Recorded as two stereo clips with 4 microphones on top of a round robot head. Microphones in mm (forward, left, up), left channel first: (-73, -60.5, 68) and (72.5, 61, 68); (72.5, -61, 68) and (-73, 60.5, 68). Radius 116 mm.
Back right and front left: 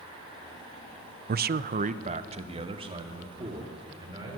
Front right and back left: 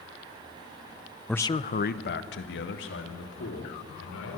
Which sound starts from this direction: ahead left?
A man speaking, at 1.3 s.